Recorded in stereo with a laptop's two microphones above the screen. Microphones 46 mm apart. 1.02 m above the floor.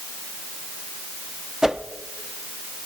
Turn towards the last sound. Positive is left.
turn(degrees=-15)  # may be behind; listen again after turning